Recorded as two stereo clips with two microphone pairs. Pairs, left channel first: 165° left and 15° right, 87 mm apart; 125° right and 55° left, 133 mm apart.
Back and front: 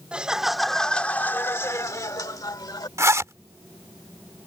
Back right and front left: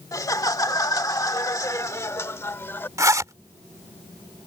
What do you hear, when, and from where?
0.1 s laughter: 80° right; by 2.9 s 165° left
3.0 s a zipper: 5° left